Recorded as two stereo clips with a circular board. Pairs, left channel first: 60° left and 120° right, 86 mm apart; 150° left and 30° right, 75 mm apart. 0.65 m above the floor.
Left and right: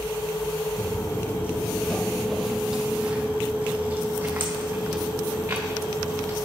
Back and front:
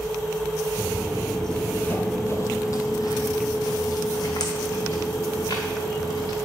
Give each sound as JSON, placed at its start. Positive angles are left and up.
{"t": 0.8, "sound": "footsteps", "azimuth_deg": 35, "distance_m": 0.8}